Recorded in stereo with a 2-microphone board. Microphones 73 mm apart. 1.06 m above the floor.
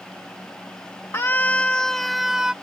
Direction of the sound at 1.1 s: 40° left (ahead or behind).